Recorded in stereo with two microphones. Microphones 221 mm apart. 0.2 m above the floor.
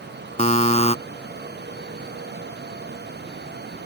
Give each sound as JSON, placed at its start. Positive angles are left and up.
{"t": 0.4, "sound": "a buzzer", "side_deg": 30}